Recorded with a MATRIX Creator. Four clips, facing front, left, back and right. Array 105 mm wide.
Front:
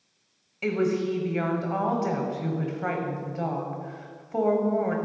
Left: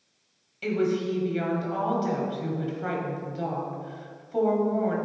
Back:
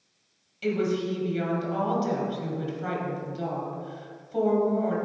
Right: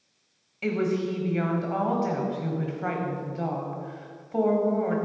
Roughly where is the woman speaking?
Ahead right.